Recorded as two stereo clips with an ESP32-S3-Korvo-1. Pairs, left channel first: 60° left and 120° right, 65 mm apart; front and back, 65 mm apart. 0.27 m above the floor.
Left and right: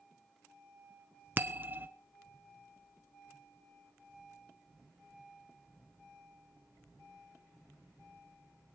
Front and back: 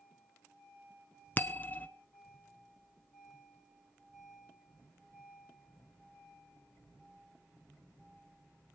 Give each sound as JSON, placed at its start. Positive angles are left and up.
{"t": 1.4, "sound": "a bell", "azimuth_deg": -60, "distance_m": 0.6}